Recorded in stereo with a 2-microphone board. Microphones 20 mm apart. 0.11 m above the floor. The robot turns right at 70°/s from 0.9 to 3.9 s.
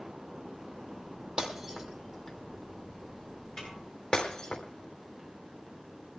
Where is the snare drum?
30° left (ahead or behind), 8 m; by 3.8 s 40° left (ahead or behind), 8 m.